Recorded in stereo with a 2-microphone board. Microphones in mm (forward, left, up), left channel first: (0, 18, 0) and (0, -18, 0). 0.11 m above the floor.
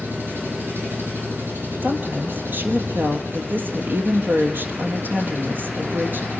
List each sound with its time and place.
0.0 s an engine running: 90° right, 7.5 m
1.8 s a woman speaking: 65° right (ahead or behind), 3 m